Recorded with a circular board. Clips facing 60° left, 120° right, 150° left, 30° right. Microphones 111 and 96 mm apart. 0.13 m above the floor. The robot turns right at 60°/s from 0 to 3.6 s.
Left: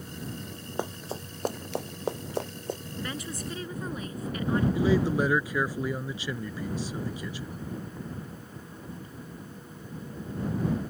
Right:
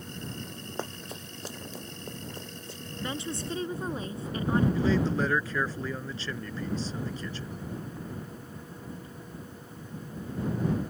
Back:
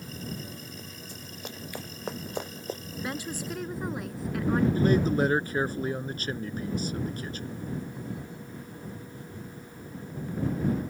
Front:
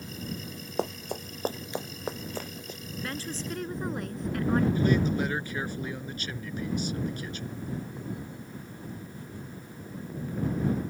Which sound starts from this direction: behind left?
A man speaking, at 4.8 s.